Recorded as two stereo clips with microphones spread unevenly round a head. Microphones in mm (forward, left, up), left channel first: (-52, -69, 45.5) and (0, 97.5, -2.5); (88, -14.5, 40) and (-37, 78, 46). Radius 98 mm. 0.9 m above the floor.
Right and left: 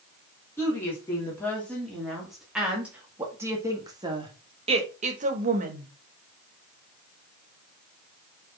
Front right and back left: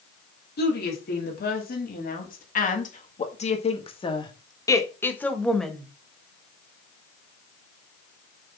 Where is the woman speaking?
25° right, 2.5 m; by 5.9 s 55° left, 1.7 m.